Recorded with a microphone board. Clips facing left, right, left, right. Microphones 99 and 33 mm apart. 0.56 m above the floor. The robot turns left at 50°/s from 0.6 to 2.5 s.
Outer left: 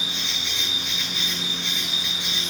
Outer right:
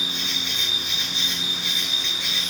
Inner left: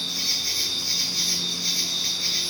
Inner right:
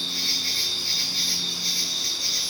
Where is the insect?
120° right, 1.2 m; by 2.5 s 145° left, 1.2 m.